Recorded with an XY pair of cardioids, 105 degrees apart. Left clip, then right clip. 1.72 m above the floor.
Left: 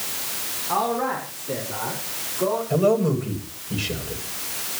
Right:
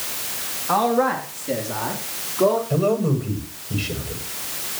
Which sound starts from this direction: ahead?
A man speaking, at 2.7 s.